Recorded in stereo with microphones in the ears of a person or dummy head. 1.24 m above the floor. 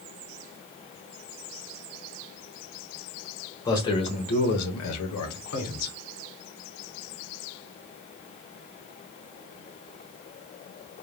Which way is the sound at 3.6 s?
15° left (ahead or behind).